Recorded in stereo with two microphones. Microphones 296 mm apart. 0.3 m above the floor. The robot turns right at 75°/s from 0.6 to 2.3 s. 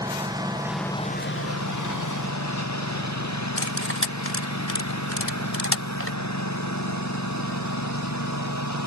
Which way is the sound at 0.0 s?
15° right.